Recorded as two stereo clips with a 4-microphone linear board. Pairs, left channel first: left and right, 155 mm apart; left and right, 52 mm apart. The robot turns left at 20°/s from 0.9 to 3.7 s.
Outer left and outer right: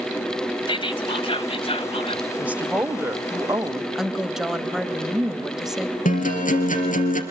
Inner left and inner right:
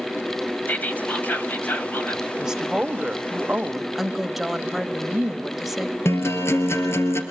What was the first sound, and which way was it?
Whispering, 35° left (ahead or behind).